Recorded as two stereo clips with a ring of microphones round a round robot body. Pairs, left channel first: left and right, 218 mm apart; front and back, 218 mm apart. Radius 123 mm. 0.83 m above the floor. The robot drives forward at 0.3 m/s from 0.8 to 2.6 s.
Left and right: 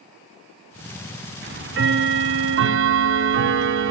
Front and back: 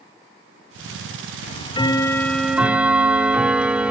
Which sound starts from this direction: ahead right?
Ticking, at 1.4 s.